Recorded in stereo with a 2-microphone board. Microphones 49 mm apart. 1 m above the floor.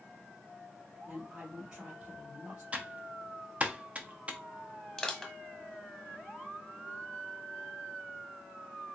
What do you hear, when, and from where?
1.1 s a woman speaking: 25° right (ahead or behind), 2 m
2.7 s typing on a keyboard: 30° right (ahead or behind), 0.5 m
5.0 s crushing: 15° left (ahead or behind), 0.9 m